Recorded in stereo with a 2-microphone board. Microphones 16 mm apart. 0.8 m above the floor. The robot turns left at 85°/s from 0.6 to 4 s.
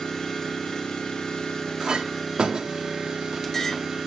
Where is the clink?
40° right (ahead or behind), 1.0 m; by 3.8 s 35° left (ahead or behind), 1.0 m.